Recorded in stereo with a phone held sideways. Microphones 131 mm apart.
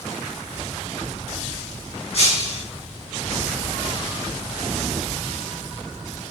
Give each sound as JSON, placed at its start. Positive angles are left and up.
{"t": 2.1, "sound": "breaking glass", "side_deg": 50, "distance_m": 5.0}